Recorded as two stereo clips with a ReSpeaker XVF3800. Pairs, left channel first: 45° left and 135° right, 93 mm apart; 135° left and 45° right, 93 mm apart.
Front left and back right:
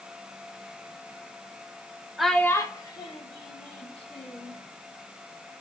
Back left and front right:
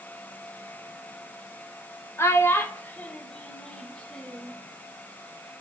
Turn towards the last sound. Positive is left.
turn(degrees=55)